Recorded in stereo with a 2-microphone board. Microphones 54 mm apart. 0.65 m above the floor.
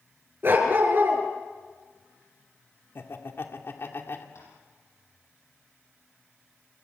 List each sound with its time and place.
0.4 s a dog barking: 45° right (ahead or behind), 4.5 m
3.0 s laughter: 50° left (ahead or behind), 2 m
4.3 s tapping: 65° left (ahead or behind), 10 m